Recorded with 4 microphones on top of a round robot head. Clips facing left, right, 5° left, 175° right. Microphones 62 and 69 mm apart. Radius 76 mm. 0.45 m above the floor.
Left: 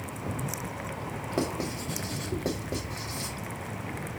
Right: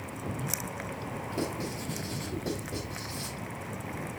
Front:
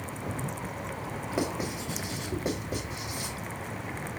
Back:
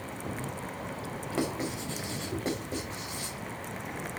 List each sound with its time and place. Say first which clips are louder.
1.3 s writing: left 4 dB, even; 85° left, 3.5 m